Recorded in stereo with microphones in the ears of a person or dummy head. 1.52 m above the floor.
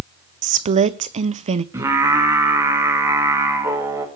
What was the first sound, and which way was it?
A woman speaking, 30° right (ahead or behind).